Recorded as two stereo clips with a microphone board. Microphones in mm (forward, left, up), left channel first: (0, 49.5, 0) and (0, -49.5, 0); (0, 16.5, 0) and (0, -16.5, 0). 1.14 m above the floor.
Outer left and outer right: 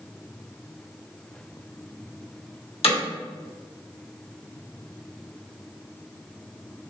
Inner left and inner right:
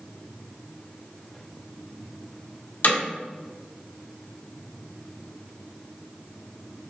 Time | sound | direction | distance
2.8 | hammering | 75° left (ahead or behind) | 1.3 m